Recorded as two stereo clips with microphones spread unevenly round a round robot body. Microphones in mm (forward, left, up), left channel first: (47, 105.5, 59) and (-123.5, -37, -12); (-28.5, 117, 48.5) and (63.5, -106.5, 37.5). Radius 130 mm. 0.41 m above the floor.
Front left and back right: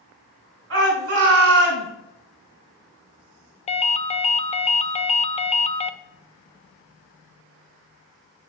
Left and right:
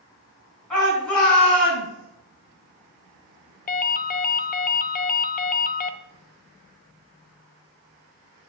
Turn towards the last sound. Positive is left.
turn(degrees=110)